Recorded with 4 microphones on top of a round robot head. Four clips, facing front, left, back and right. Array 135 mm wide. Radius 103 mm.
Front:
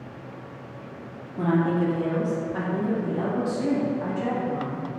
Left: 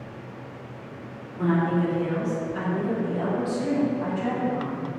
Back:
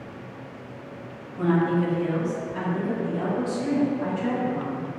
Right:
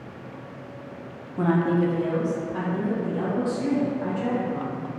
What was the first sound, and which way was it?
A woman speaking, 70° right.